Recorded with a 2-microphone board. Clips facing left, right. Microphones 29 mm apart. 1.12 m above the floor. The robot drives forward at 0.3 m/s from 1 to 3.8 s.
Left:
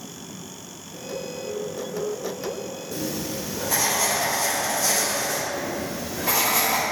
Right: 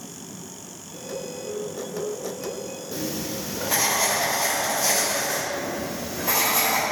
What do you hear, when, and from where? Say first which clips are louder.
2.9 s writing: even; 20° right (ahead or behind), 0.8 m; by 5.4 s 15° right (ahead or behind), 1.0 m
5.5 s writing: even; 60° left (ahead or behind), 1.8 m